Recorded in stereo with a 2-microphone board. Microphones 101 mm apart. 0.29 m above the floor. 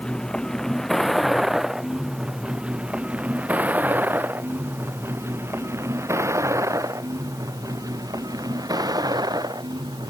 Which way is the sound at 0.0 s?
5° left (ahead or behind).